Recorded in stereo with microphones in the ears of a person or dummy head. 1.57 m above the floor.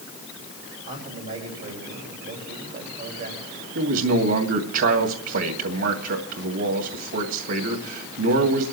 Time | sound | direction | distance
0.9 | a man speaking | 45° right (ahead or behind) | 6 m
3.8 | a man speaking | 80° right | 2.5 m